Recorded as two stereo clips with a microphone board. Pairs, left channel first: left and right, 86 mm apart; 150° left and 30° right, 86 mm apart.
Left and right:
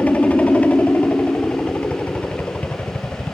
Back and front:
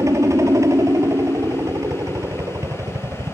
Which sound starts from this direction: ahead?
A helicopter, at 0.0 s.